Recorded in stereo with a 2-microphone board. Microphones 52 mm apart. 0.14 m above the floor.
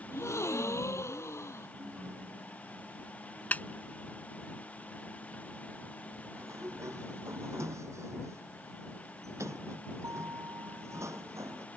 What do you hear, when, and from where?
0.1 s a gasp: 70° left (ahead or behind)
1.8 s a ringtone: 50° right (ahead or behind)
3.5 s a snare drum: 35° left (ahead or behind)
6.4 s a sliding door: 75° right (ahead or behind)